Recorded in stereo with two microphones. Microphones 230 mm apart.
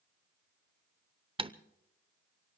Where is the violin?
I don't hear a violin.